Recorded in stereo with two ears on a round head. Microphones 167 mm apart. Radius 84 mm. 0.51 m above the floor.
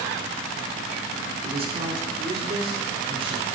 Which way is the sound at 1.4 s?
30° right (ahead or behind).